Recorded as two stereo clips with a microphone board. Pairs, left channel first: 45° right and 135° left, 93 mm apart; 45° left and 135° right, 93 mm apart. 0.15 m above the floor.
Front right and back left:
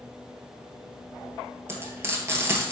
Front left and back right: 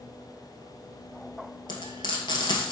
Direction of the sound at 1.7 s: 75° left.